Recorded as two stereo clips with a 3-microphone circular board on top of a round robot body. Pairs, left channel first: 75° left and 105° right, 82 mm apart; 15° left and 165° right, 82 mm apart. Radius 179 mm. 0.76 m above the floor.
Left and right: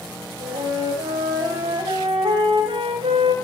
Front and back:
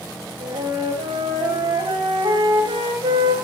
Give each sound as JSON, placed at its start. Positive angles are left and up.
{"t": 0.4, "sound": "a flute", "azimuth_deg": -135, "distance_m": 2.0}